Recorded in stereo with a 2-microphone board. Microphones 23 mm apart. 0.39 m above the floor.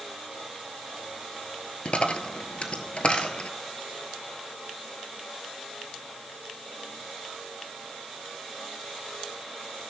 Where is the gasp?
No gasp in this recording.